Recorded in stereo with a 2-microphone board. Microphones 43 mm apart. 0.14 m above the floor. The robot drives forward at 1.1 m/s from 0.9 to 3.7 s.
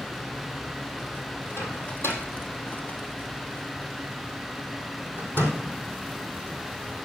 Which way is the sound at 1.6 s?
70° left (ahead or behind).